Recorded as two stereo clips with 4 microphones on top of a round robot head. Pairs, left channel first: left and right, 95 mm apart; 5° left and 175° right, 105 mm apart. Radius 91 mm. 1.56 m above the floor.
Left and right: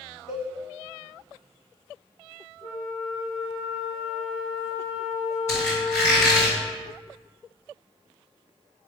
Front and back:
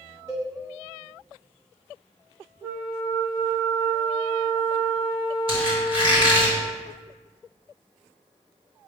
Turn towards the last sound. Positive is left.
turn(degrees=165)